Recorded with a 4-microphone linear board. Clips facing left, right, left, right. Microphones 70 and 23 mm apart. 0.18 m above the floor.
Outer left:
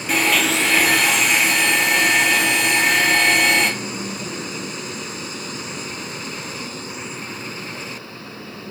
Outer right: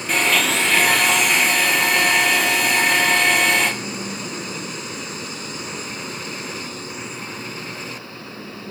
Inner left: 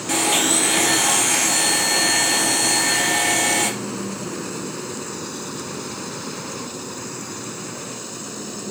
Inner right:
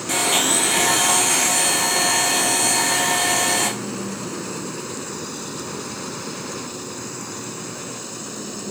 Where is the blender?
Centre (ahead or behind), 0.6 m.